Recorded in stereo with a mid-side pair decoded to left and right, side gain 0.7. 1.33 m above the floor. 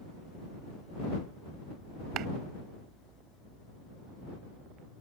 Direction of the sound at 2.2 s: 55° right.